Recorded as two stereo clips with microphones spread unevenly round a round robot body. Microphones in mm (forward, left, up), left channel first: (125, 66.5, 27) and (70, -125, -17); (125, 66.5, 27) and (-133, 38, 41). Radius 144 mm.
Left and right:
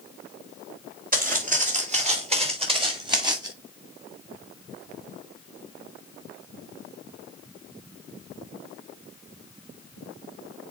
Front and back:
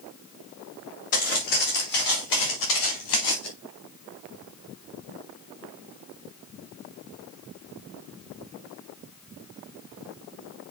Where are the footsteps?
60° right, 3.5 m; by 3.5 s 30° right, 3.5 m.